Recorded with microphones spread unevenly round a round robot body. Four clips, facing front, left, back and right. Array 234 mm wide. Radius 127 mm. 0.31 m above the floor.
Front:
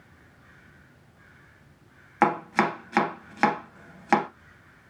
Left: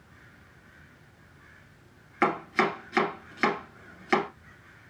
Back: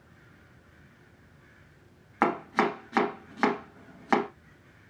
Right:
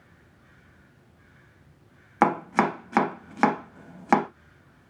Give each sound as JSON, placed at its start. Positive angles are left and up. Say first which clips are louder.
{"t": 2.2, "sound": "chopping", "louder": "right 4 dB, front 3 dB", "azimuth_deg": -70, "distance_m": 0.6}